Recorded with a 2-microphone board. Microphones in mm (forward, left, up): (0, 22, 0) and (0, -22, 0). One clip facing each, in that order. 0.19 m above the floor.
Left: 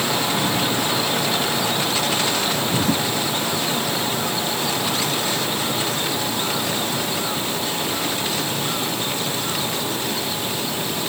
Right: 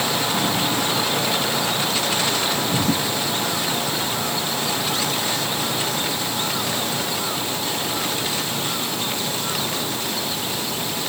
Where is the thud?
I don't hear a thud.